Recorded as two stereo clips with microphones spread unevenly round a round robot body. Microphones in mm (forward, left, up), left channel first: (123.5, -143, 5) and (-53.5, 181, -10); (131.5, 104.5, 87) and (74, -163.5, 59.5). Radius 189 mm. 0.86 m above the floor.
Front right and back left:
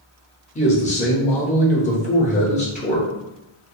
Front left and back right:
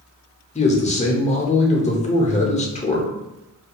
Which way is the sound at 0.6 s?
10° left.